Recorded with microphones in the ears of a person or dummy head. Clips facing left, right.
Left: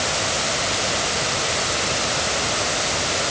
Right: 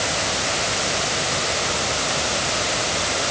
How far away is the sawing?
No sawing in this recording.